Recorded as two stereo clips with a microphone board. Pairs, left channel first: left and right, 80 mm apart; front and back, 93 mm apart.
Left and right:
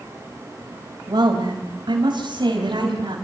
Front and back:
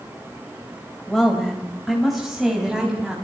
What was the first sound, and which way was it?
A woman speaking, 85° right.